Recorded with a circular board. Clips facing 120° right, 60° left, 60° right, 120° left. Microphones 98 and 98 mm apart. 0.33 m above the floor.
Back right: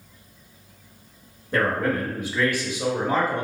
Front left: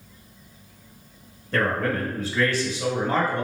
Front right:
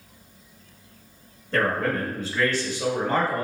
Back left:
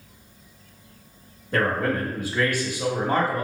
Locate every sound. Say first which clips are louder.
1.5 s a man speaking: back right 1 dB, back left 1 dB; straight behind, 0.9 m